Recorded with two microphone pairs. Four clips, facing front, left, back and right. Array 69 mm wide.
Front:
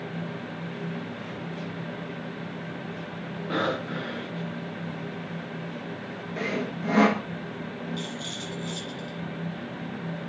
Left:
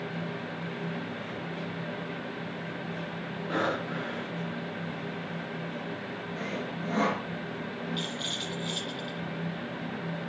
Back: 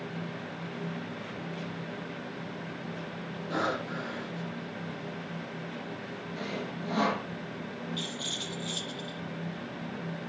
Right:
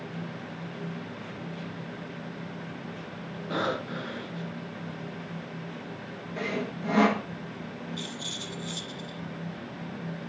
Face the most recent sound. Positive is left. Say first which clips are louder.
# left 3 dB, front 3 dB
turn(degrees=95)